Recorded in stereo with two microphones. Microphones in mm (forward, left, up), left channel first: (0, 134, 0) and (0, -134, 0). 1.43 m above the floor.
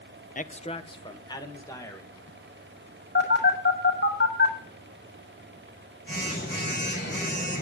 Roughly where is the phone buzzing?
Left.